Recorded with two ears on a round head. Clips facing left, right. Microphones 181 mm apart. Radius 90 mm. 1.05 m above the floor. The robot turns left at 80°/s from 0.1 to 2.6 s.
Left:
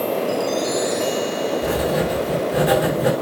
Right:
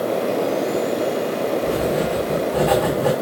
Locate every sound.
1.6 s writing: 95° left, 6 m; by 3.1 s 15° left, 6 m